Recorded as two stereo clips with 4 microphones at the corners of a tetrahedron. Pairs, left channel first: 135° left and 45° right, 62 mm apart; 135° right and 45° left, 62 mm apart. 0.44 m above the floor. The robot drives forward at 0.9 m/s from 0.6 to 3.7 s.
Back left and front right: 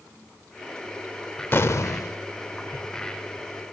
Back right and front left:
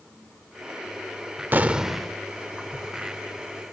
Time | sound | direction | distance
1.5 | an explosion | 90° left | 0.5 m